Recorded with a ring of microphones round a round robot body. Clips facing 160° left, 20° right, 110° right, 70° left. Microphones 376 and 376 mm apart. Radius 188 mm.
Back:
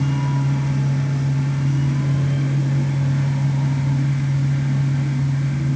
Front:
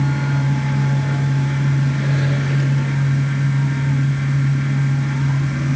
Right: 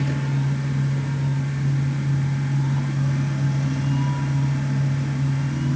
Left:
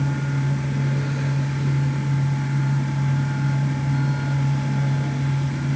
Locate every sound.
Only background noise.